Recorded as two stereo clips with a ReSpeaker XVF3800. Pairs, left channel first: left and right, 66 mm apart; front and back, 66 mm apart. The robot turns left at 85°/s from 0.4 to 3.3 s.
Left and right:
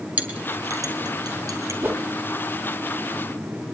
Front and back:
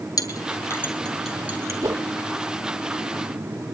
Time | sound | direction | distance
0.2 | a clink | 20° right | 2.5 m
1.8 | a whoosh | 145° right | 1.3 m